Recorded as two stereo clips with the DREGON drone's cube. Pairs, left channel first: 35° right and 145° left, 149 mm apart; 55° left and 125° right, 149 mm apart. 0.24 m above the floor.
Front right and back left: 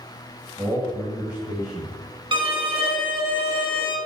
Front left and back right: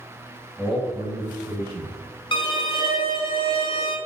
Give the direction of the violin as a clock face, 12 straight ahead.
9 o'clock.